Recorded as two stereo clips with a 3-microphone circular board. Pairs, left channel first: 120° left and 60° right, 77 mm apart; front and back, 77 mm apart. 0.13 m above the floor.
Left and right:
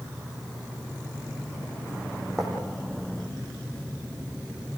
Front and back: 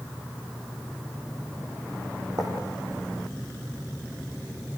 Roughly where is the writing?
Behind right.